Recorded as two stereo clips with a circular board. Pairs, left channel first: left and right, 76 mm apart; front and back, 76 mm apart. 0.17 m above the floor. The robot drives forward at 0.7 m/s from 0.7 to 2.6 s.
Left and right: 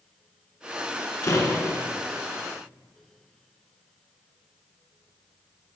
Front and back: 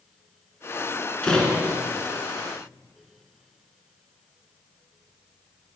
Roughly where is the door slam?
Left.